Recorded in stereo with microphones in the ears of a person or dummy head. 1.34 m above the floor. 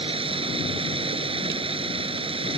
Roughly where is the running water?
Right.